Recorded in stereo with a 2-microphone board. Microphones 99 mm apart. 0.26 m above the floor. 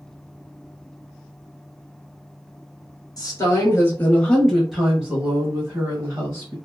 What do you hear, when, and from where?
3.2 s a woman speaking: 40° left (ahead or behind), 1.4 m; by 6.5 s 35° right (ahead or behind), 1.8 m